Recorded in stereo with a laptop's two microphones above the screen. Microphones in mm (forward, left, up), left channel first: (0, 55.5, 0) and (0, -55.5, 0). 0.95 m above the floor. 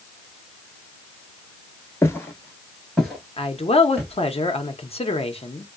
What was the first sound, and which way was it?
Footsteps, 25° left (ahead or behind).